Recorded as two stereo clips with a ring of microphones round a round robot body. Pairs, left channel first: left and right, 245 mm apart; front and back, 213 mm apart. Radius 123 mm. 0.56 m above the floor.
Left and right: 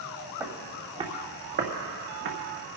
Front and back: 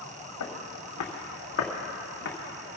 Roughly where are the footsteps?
Ahead.